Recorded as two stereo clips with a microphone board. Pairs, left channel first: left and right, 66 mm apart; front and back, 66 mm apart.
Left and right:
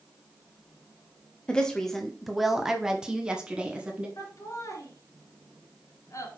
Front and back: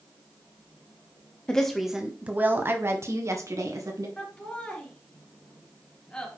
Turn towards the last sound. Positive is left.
turn(degrees=70)